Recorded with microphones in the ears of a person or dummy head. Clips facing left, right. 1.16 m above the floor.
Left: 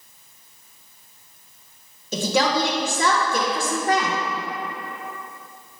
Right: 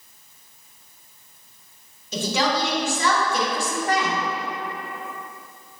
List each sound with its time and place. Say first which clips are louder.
2.1 s a woman speaking: left 2 dB; 50° left (ahead or behind), 0.8 m